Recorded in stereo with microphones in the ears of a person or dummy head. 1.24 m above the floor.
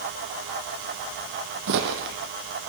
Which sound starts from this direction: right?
Footsteps, at 1.7 s.